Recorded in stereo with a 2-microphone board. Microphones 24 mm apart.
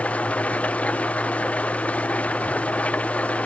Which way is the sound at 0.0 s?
65° left (ahead or behind).